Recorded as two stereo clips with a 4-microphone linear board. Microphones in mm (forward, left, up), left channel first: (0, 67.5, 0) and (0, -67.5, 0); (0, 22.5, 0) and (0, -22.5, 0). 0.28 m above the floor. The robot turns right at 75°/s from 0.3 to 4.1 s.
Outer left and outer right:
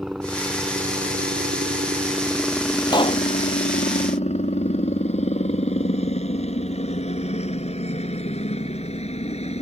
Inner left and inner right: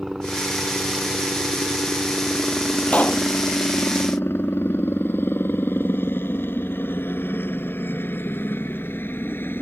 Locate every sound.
0.0 s a helicopter: 5° right (ahead or behind); by 9.6 s 50° left (ahead or behind)
2.9 s a pop: 30° left (ahead or behind); by 3.2 s 55° left (ahead or behind)